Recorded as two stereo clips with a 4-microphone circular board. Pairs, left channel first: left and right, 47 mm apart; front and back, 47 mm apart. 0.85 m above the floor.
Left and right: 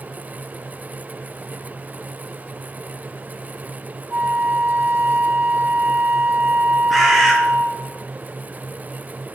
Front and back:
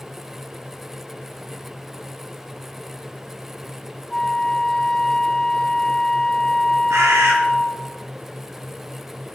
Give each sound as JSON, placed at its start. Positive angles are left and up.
{"t": 4.1, "sound": "a flute", "azimuth_deg": -75, "distance_m": 0.8}
{"t": 6.9, "sound": "a bird", "azimuth_deg": -175, "distance_m": 2.5}